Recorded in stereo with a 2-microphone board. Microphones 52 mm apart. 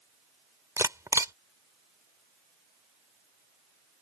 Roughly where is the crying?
I don't hear crying.